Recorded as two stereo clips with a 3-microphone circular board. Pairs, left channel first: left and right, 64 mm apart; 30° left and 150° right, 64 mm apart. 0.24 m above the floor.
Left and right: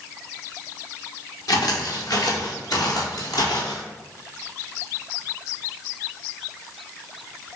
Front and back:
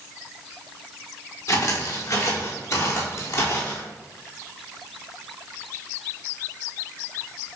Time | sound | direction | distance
1.5 | footsteps | 70° left | 4 m